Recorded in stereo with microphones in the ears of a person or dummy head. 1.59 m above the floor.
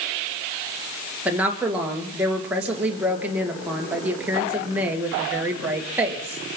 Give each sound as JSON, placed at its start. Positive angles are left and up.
{"t": 1.2, "sound": "a woman speaking", "side_deg": -10, "distance_m": 2.0}